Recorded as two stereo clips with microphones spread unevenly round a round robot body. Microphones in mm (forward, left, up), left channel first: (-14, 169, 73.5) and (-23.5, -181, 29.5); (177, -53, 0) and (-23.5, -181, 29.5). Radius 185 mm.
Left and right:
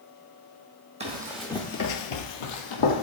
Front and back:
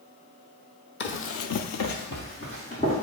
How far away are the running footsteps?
About 1.1 m.